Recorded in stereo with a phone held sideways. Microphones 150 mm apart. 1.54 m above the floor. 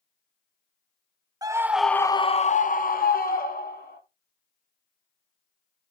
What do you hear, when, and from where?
1.4 s a scream: 25° right (ahead or behind), 0.7 m; by 4.0 s 80° left, 1.7 m